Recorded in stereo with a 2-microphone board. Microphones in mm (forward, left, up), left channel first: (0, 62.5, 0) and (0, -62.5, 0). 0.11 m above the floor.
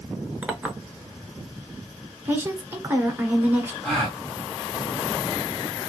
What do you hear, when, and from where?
0.4 s a clink: 10° right (ahead or behind), 0.8 m
2.2 s a woman speaking: 15° right (ahead or behind), 1.1 m
3.8 s a gasp: 5° left (ahead or behind), 1.8 m